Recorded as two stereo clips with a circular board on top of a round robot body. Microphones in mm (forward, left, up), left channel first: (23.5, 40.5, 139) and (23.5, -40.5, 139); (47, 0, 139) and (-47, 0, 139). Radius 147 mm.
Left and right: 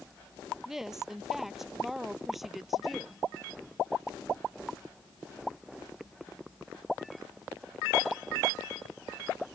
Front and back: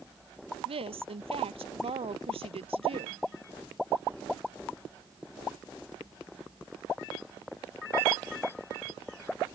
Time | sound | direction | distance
0.7 | a woman speaking | 175° right | ?